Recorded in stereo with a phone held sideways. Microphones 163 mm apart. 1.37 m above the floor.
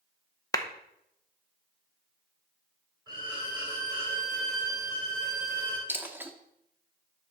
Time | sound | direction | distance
0.5 | a clap | 20° left (ahead or behind) | 0.7 m
3.1 | a violin | 25° right (ahead or behind) | 3 m
5.9 | a dropped coin | 10° right (ahead or behind) | 0.9 m